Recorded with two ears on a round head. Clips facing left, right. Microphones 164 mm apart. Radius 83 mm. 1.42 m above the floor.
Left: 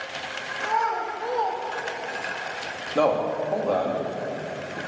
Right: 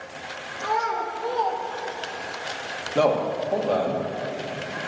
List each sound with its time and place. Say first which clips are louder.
0.6 s a child speaking: even; 15° right (ahead or behind), 1.9 m; by 2.3 s 45° left (ahead or behind), 1.1 m
3.0 s a man speaking: right 1 dB; 5° right (ahead or behind), 2 m